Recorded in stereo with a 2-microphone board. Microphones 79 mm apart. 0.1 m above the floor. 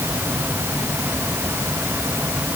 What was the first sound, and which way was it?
Only background noise.